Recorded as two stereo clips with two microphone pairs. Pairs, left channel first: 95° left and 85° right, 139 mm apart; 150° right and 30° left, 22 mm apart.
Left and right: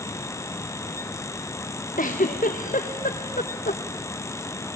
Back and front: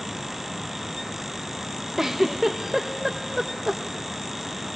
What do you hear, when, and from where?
2.0 s a giggle: 110° left, 4 m